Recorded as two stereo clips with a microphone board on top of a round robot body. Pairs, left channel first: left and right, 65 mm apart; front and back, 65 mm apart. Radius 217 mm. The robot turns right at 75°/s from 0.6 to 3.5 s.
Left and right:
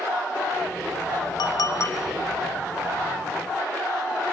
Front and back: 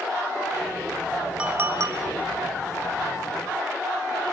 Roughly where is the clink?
Left.